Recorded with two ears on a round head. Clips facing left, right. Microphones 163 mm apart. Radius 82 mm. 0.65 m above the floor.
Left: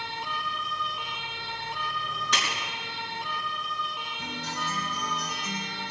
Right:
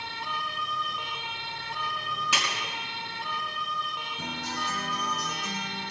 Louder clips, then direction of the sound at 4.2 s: Right 1 dB; 40° right (ahead or behind).